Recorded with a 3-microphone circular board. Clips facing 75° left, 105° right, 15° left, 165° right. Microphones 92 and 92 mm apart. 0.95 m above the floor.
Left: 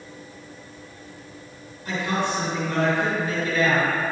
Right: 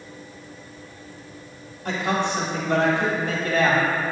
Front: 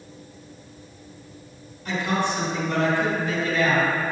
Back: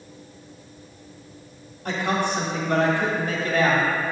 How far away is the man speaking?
About 1.8 m.